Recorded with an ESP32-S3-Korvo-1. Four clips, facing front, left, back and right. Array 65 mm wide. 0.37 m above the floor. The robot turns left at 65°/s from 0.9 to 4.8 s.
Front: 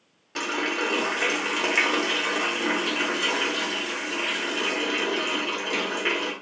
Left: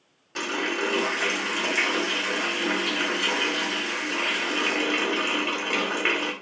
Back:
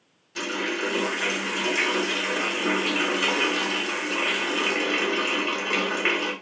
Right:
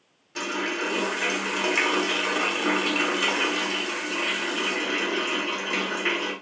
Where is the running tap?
30° left, 1.1 m; by 6.3 s 135° left, 1.1 m.